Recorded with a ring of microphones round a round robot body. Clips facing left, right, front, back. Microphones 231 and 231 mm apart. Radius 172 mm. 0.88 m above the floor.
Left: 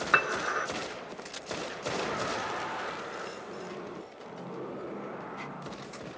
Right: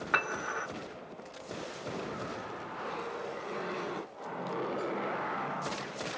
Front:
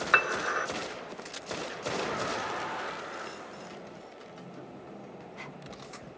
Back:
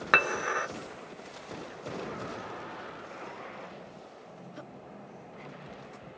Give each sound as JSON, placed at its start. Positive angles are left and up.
{"t": 0.1, "sound": "dishes clattering", "azimuth_deg": 145, "distance_m": 1.0}